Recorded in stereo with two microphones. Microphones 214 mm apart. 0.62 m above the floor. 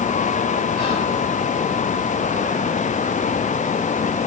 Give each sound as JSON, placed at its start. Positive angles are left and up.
{"t": 0.8, "sound": "whispering", "side_deg": 35, "distance_m": 1.5}